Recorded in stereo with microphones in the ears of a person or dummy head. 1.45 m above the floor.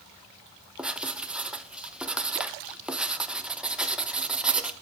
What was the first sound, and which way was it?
Writing, 5° right (ahead or behind).